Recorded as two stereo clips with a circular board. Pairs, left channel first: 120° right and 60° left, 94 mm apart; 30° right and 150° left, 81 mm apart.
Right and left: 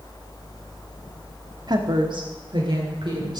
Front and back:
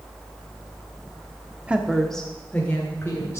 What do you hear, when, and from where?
1.7 s a woman speaking: 80° left, 1.1 m; by 3.4 s 25° left, 2.5 m